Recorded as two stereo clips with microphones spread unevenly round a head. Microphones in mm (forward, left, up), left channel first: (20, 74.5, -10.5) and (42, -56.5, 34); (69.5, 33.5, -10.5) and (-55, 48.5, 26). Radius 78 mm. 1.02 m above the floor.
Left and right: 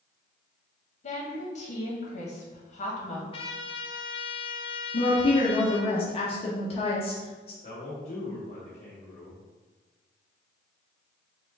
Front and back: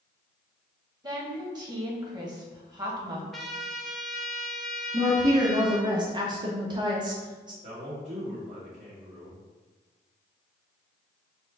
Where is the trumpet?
135° left, 0.6 m.